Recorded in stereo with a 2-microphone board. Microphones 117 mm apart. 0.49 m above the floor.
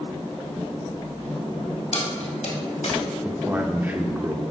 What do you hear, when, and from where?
1.9 s keys jangling: 70° left (ahead or behind), 2.5 m; by 3.0 s 75° left (ahead or behind), 2 m
3.2 s a man speaking: 15° right (ahead or behind), 0.9 m